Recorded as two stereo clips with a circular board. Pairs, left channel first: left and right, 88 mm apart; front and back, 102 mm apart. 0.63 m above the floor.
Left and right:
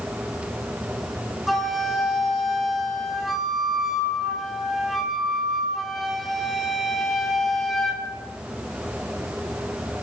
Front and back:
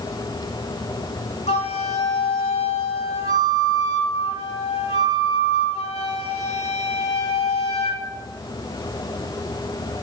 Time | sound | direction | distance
1.5 | a flute | straight ahead | 1.2 m